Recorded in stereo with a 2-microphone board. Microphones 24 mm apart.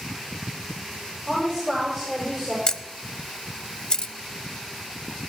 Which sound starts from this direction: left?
A camera shutter, at 2.7 s.